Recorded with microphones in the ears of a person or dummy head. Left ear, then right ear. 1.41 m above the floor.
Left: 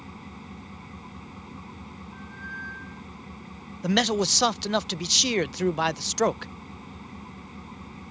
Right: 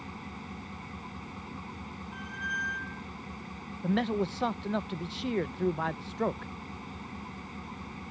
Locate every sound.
0.0 s an engine running: 15° right (ahead or behind)
2.1 s a squeak: 20° right (ahead or behind)
3.8 s a man speaking: 85° left